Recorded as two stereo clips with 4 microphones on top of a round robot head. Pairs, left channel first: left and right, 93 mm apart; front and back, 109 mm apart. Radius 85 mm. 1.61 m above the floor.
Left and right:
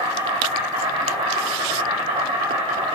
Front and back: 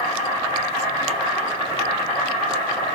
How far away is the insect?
About 2 m.